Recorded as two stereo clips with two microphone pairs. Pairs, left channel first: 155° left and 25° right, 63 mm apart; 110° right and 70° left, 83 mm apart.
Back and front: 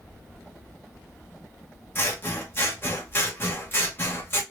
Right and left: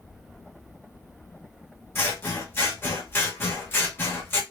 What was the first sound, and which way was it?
Scissors, 165° right.